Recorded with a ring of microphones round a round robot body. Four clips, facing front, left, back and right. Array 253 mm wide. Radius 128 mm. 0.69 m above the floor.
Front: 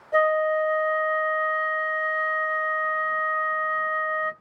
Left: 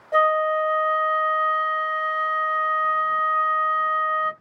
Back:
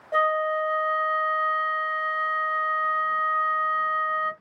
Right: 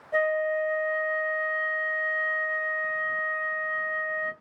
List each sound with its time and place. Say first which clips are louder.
0.1 s a flute: left 6 dB, front 2 dB; 120° left, 1.7 m